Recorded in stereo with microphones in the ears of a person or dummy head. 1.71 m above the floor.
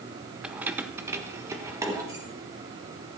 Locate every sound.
0.4 s keys jangling: 5° right (ahead or behind), 0.7 m; by 2.2 s 15° right (ahead or behind), 2 m